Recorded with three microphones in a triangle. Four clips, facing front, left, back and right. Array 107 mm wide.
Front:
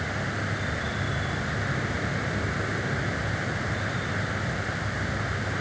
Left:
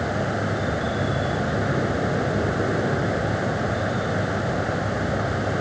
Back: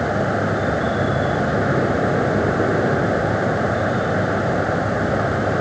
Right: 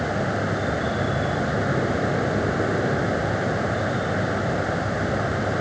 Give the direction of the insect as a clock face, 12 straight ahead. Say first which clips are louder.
Even, back 12 dB; 6 o'clock.